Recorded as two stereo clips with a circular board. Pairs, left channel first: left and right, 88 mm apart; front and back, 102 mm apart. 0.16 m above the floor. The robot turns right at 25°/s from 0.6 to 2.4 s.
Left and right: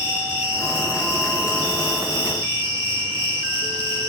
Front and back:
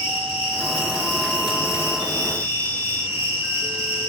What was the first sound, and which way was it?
An insect, 165° right.